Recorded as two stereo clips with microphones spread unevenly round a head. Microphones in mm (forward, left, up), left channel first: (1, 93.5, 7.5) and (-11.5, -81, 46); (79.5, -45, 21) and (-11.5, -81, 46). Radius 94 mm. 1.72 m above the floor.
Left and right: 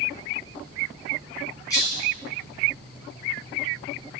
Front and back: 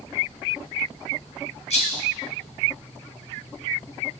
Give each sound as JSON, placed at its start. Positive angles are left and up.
{"t": 1.7, "sound": "a rattle", "azimuth_deg": 10, "distance_m": 0.8}